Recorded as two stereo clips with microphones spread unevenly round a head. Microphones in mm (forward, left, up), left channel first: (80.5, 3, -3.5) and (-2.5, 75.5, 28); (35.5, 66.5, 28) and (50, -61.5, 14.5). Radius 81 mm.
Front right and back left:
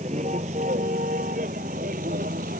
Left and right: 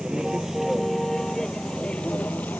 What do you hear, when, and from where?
0.0 s a vehicle: 170° right; by 2.6 s 175° left